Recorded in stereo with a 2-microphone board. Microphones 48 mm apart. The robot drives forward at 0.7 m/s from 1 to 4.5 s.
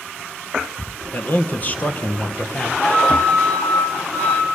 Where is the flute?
45° left (ahead or behind), 4 m; by 4.5 s 40° left (ahead or behind), 4.5 m.